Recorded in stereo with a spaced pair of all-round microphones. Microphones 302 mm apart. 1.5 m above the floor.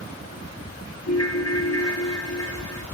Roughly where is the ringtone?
Left.